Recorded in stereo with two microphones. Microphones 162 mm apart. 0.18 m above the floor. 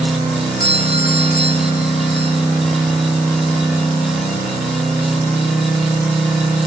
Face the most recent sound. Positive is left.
turn(degrees=70)  # may be behind; listen again after turning